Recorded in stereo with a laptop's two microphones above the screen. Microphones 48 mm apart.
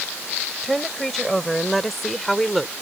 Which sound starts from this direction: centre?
A woman speaking, at 0.6 s.